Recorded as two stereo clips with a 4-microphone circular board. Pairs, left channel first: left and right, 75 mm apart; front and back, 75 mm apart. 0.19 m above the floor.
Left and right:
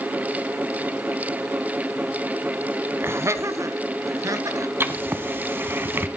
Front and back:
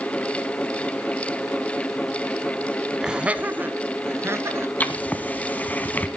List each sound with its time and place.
3.0 s laughter: 105° right, 1.1 m; by 4.7 s 130° right, 2.5 m
4.8 s writing: 50° right, 1.5 m